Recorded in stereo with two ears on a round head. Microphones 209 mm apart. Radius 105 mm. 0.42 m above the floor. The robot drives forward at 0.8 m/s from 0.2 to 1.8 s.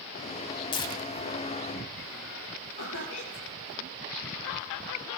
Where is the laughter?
80° left, 7.5 m.